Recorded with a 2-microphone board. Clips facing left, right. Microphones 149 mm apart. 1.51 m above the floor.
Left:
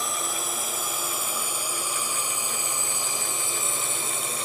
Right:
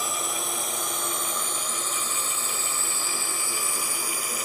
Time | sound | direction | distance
0.0 | a drone | centre (ahead or behind) | ?